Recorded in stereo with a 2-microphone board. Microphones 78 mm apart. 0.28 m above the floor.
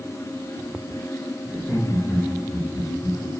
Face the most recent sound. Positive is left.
turn(degrees=50)  # may be behind; listen again after turning